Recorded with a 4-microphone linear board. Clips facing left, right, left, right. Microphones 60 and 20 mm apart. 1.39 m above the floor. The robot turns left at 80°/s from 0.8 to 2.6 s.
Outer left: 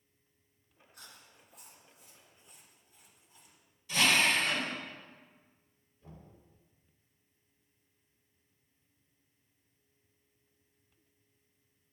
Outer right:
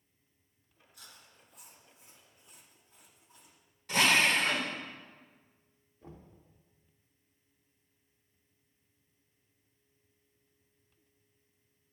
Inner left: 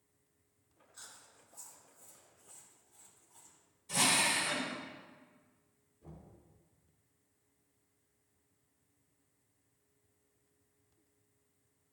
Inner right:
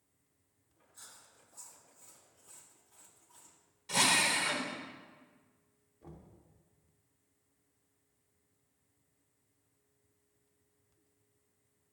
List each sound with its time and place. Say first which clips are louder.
0.9 s chewing: outer left 1 dB, inner left 1 dB; 50° left (ahead or behind), 1.8 m; by 3.6 s 80° right, 1.8 m
3.9 s a drill: outer right 1 dB, inner right 2 dB; 60° right (ahead or behind), 1.9 m
6.0 s knocking: outer right 3 dB, inner right 1 dB; 75° right (ahead or behind), 2.5 m